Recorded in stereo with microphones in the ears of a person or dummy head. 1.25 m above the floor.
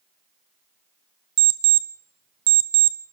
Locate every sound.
1.4 s an alarm clock: 60° right (ahead or behind), 0.7 m